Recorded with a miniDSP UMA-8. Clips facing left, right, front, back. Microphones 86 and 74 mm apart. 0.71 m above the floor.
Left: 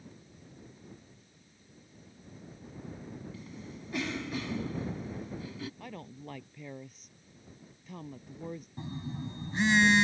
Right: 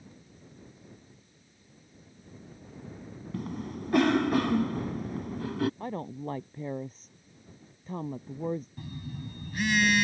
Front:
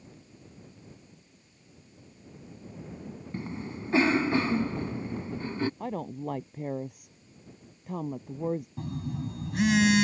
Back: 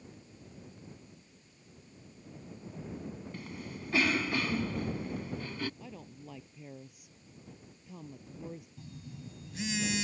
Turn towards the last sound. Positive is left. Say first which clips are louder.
# left 2 dB, front 13 dB
turn(degrees=25)